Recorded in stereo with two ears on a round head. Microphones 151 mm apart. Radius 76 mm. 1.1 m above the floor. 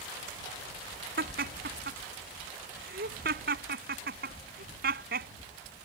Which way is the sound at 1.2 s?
60° right (ahead or behind).